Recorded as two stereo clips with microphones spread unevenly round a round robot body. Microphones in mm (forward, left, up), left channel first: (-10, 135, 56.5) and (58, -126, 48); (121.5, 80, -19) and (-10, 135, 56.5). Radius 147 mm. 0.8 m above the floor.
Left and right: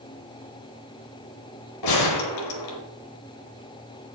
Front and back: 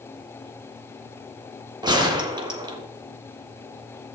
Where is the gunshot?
110° left, 1.7 m.